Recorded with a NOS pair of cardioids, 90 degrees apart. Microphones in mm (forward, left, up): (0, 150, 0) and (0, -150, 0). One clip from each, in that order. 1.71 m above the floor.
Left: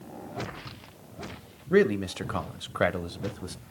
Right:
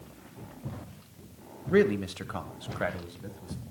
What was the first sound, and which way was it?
A man speaking, 5° left.